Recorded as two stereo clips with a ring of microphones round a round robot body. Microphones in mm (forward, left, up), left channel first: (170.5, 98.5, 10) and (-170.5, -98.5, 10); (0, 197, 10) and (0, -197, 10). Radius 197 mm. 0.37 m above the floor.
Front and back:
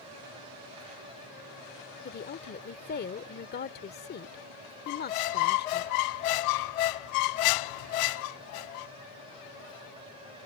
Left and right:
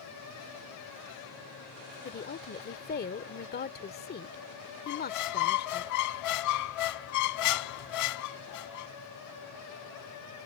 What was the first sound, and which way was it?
A woman speaking, 60° left.